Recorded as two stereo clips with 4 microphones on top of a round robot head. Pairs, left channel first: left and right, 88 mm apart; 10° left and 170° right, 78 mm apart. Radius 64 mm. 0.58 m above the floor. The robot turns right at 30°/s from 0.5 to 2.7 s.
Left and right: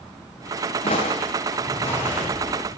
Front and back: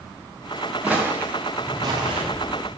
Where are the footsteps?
110° left, 3 m; by 2.2 s 175° left, 3.5 m.